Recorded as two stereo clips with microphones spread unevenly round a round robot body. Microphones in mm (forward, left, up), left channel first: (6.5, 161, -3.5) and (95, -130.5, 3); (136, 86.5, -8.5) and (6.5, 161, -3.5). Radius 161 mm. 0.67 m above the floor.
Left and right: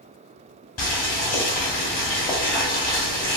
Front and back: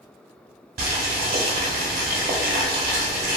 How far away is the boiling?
About 0.7 m.